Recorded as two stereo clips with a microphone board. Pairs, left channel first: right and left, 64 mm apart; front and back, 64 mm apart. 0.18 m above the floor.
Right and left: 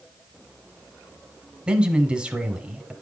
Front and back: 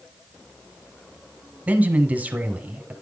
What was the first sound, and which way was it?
A man speaking, 150° left.